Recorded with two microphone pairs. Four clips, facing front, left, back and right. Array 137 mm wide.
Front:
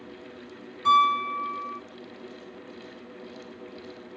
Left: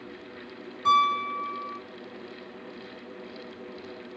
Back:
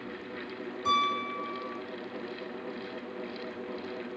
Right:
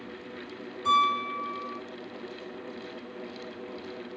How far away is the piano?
About 6 m.